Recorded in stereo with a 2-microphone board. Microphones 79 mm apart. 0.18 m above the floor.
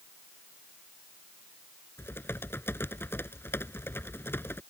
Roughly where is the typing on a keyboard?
Left.